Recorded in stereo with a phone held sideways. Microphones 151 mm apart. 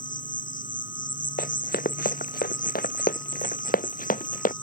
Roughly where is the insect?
Left.